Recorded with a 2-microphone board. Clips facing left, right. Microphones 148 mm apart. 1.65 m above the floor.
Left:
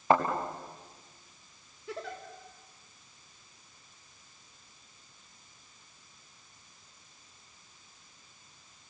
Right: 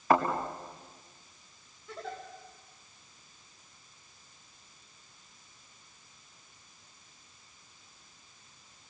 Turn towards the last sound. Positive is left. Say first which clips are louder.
# left 1 dB
turn(degrees=80)